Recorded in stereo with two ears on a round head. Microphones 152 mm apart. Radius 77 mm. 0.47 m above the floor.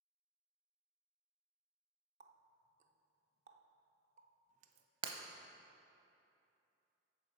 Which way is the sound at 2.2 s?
45° right (ahead or behind).